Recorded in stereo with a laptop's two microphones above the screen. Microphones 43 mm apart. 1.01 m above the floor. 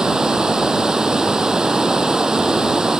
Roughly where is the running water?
Centre.